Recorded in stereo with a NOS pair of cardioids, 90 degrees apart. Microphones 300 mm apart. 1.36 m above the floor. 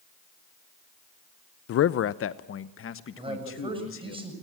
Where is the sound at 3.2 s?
15° right, 7 m.